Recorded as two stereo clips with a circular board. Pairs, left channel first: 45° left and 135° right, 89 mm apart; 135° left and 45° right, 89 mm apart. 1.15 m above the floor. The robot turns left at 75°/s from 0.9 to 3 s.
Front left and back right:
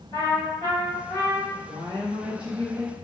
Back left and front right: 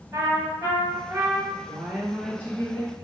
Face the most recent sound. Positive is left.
turn(degrees=160)